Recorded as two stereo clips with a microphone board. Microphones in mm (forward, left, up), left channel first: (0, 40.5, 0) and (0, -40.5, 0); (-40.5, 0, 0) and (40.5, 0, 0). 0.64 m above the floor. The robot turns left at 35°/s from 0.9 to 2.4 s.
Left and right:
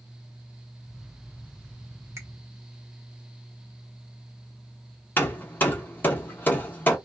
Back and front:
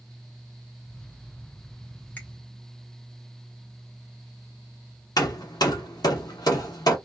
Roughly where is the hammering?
Behind left.